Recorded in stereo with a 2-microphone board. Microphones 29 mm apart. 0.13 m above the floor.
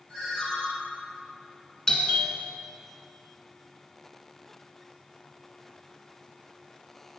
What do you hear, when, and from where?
0.1 s a ringtone: 15° left (ahead or behind), 3 m
1.9 s a doorbell: 20° left (ahead or behind), 1.5 m